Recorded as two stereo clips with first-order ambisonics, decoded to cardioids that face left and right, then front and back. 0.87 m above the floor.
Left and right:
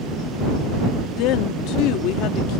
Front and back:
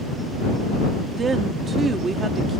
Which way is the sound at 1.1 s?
115° left.